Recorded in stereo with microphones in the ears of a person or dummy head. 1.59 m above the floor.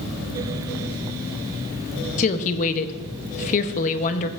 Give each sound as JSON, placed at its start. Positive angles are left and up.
{"t": 2.2, "sound": "a woman speaking", "side_deg": 35, "distance_m": 0.8}